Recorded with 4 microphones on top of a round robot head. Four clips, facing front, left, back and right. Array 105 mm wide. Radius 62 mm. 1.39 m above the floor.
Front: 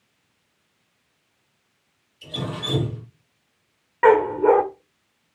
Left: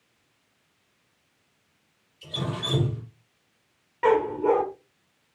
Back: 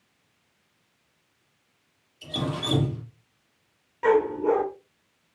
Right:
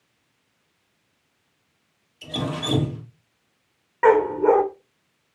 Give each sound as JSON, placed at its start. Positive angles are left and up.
{"t": 2.2, "sound": "dripping", "azimuth_deg": -95, "distance_m": 5.5}
{"t": 4.0, "sound": "a dog barking", "azimuth_deg": -35, "distance_m": 1.4}